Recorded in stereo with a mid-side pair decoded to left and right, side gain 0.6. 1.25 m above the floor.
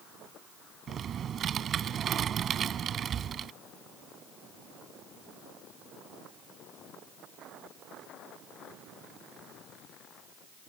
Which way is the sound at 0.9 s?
45° right.